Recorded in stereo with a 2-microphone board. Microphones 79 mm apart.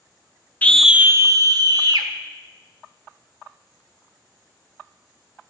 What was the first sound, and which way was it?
A scream, 20° left (ahead or behind).